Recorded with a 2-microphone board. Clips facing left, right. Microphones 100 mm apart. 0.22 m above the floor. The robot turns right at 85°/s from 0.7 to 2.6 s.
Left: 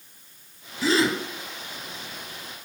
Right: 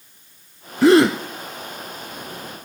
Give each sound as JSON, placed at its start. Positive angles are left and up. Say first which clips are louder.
{"t": 0.8, "sound": "a gasp", "louder": "right 10 dB", "azimuth_deg": -90, "distance_m": 0.7}